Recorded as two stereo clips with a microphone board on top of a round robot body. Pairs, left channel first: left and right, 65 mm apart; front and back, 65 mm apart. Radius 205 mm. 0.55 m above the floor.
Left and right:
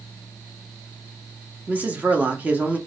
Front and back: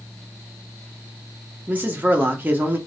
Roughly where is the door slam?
I don't hear a door slam.